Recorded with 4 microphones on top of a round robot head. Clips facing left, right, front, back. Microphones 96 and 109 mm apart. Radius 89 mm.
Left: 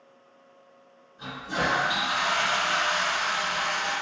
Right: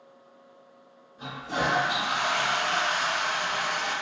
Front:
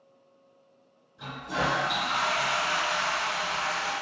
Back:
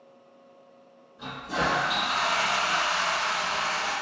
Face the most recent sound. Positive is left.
turn(degrees=-35)